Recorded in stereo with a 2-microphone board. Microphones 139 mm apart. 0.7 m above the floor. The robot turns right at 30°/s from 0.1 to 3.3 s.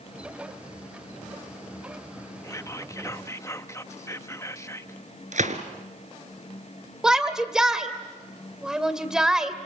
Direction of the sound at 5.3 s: 65° right (ahead or behind).